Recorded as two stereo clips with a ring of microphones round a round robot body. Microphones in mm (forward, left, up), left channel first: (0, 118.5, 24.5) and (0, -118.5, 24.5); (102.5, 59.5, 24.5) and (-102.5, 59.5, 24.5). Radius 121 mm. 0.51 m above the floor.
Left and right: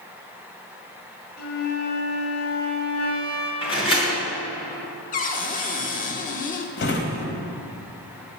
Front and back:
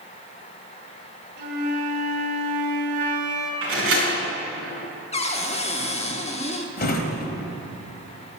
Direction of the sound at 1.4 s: 140° left.